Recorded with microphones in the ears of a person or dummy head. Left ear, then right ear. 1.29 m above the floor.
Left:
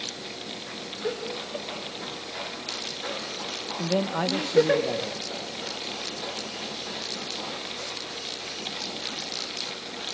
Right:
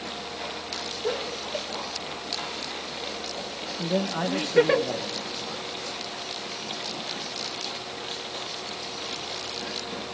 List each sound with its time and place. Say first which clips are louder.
1.0 s laughter: even; 5° right (ahead or behind), 4.5 m; by 4.8 s 20° right (ahead or behind), 2.5 m
3.8 s a man speaking: left 1 dB; 10° left (ahead or behind), 1.1 m